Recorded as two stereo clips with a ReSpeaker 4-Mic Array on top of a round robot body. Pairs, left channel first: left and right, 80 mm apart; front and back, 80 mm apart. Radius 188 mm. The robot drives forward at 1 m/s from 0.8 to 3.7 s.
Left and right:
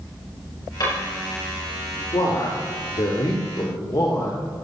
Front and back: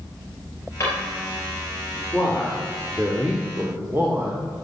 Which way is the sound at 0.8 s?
50° left.